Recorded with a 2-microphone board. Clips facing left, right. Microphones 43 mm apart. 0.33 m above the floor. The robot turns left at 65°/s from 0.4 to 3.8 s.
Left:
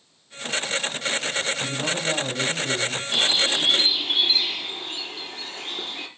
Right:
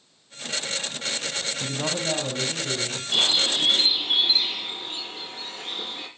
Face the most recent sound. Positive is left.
turn(degrees=130)